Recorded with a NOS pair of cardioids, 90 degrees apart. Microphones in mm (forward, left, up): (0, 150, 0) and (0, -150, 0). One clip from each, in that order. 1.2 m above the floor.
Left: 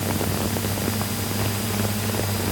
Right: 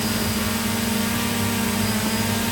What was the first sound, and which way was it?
Only background noise.